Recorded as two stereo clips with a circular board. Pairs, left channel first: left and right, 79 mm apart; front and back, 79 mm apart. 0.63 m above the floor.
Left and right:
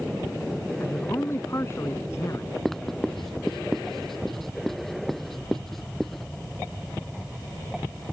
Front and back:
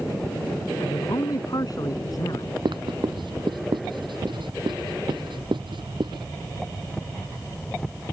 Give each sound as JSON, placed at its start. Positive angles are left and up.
{"t": 0.8, "sound": "a man speaking", "azimuth_deg": 35}
{"t": 2.6, "sound": "writing", "azimuth_deg": 175}